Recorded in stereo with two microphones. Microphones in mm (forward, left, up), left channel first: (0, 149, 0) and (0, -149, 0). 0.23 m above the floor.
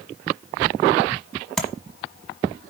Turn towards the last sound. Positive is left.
turn(degrees=0)  # may be behind; listen again after turning